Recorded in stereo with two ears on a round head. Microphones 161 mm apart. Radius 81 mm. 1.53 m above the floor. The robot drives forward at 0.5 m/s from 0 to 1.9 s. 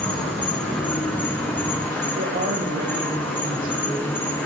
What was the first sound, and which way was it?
An insect, 10° left (ahead or behind).